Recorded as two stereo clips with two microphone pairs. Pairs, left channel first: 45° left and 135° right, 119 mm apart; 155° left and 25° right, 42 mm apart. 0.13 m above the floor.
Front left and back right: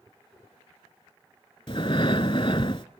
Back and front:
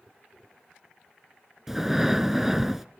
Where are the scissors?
I don't hear scissors.